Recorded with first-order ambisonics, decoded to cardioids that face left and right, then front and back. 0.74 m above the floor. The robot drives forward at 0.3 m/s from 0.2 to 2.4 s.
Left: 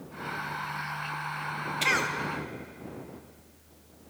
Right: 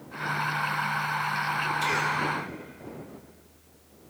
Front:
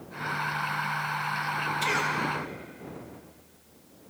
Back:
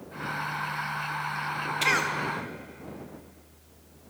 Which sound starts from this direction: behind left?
A cough, at 1.8 s.